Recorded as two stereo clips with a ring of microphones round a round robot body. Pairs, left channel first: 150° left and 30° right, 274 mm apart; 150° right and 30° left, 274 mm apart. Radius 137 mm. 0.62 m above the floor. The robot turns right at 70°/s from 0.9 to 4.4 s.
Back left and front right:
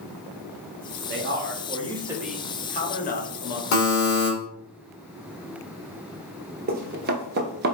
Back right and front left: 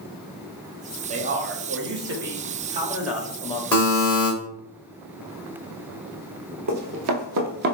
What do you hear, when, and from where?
1.1 s a man speaking: 25° right, 0.9 m; by 3.6 s 150° left, 0.9 m
3.7 s a buzzer: 125° left, 2 m; by 4.3 s 165° left, 2 m
6.7 s running footsteps: 20° left, 1.0 m; by 7.8 s 5° right, 0.6 m